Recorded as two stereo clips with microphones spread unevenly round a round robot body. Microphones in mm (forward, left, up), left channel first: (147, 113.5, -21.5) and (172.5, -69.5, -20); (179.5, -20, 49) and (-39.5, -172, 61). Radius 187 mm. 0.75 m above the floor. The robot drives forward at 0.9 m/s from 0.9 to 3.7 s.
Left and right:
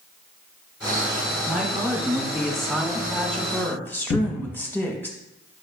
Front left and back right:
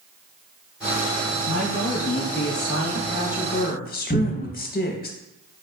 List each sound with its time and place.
1.4 s a woman speaking: 5° left, 2.5 m; by 5.1 s 25° left, 0.9 m
4.1 s a cupboard door: 80° left, 0.8 m